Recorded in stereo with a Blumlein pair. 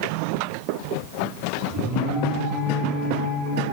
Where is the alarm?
25° right, 5 m.